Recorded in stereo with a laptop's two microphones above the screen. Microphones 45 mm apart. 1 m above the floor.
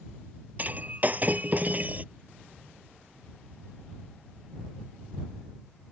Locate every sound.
0.6 s breaking glass: 40° right (ahead or behind)